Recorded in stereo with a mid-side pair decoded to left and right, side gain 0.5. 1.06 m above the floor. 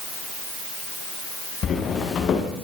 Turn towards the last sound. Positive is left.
turn(degrees=55)